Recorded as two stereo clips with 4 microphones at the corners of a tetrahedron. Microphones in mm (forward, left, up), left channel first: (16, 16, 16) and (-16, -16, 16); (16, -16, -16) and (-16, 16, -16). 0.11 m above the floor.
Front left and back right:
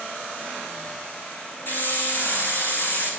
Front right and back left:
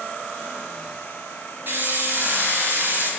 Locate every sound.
1.7 s a hiss: 95° left, 2.5 m